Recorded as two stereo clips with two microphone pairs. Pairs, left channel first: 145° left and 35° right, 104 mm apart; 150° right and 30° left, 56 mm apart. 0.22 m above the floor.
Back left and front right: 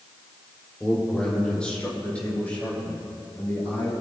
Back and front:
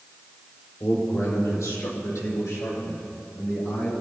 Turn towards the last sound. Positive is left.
turn(degrees=-145)